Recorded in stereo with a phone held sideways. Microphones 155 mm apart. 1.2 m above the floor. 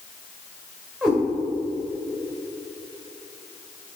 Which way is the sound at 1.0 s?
5° right (ahead or behind).